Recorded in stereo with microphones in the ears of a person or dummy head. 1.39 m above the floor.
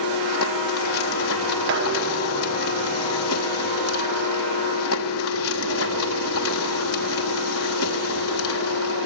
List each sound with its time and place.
0.0 s a machine running: 80° left, 3.5 m
1.7 s dishes clattering: 70° right (ahead or behind), 5 m